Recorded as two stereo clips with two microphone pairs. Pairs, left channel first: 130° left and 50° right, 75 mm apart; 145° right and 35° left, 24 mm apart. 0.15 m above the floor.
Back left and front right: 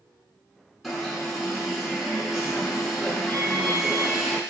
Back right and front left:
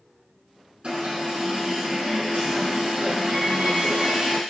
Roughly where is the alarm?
Ahead left.